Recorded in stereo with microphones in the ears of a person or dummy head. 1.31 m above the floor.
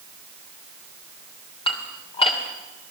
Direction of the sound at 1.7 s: 35° left (ahead or behind).